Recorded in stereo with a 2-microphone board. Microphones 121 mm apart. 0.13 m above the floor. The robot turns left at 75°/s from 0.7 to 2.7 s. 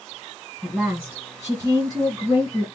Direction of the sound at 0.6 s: Centre (ahead or behind).